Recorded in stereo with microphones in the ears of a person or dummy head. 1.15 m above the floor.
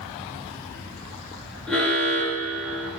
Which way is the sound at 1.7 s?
Centre (ahead or behind).